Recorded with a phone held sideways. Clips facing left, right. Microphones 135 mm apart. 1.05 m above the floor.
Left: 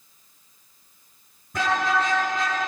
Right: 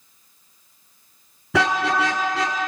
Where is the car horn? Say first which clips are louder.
Right 3 dB; 85° right, 7 m; by 2.6 s 75° right (ahead or behind), 7 m.